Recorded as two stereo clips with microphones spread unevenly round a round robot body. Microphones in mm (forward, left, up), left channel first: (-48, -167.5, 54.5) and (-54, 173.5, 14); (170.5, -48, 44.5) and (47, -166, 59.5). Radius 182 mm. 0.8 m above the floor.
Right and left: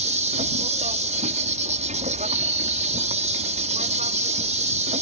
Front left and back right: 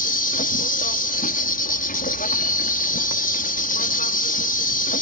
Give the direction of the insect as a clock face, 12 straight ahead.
11 o'clock.